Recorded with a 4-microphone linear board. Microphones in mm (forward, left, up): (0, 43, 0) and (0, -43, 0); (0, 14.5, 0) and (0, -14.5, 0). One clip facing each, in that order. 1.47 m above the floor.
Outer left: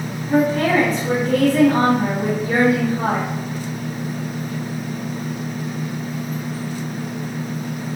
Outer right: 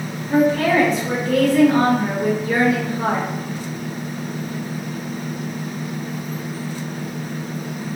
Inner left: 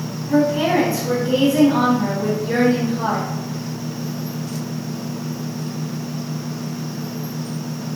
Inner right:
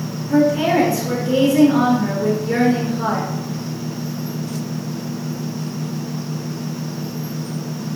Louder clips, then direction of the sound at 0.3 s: Outer right 1 dB, inner right 1 dB; 35° left (ahead or behind).